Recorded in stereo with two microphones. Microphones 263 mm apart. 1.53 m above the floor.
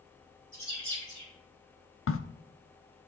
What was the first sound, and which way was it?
A bird, 50° left (ahead or behind).